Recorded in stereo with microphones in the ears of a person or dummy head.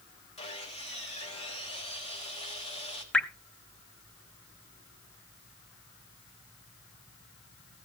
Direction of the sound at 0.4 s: 30° left (ahead or behind).